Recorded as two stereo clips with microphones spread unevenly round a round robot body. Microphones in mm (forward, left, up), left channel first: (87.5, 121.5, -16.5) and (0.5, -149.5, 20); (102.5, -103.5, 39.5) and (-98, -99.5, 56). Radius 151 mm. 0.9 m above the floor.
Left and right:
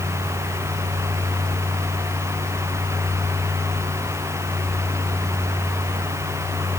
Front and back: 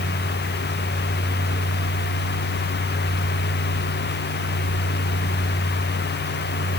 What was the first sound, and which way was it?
Only background noise.